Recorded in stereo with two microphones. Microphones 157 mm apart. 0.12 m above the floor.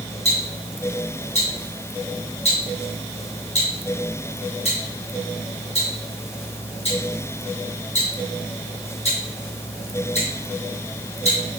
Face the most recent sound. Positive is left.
turn(degrees=45)  # may be behind; listen again after turning